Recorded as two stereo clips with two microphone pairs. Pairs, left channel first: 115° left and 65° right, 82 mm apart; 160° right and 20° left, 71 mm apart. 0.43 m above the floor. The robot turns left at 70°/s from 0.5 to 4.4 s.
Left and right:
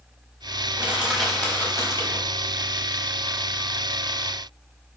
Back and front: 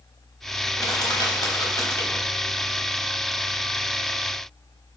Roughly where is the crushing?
Behind right.